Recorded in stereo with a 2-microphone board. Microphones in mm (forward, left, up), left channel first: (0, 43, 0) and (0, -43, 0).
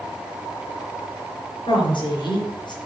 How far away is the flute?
I don't hear a flute.